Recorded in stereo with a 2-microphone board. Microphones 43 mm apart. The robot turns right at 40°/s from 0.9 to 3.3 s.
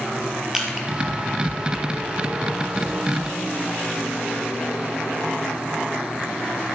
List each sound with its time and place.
0.5 s crushing: 10° right (ahead or behind), 3 m